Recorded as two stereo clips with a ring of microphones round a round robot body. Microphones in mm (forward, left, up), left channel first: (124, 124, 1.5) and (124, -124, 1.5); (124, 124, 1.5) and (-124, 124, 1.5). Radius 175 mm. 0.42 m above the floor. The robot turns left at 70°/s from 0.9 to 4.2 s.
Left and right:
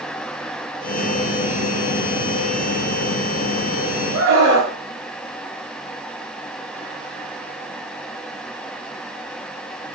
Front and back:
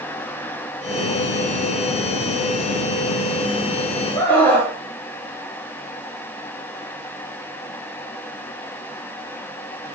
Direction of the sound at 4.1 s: 70° right.